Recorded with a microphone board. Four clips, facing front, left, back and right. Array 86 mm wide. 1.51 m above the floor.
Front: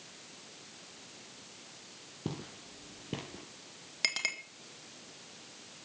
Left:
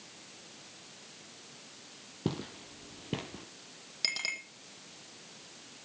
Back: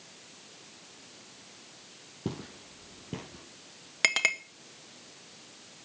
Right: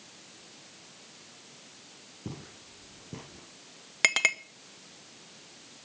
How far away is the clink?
About 1.4 m.